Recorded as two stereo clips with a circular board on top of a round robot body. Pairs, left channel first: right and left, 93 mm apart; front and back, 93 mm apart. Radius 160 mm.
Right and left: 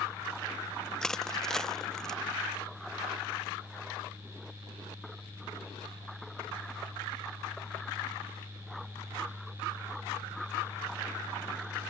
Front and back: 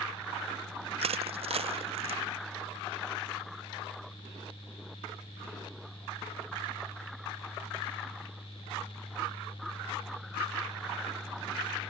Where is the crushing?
175° right.